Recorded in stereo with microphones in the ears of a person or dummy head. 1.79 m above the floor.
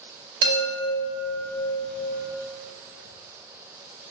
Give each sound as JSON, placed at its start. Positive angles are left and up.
{"t": 0.4, "sound": "a chime", "side_deg": -65, "distance_m": 1.7}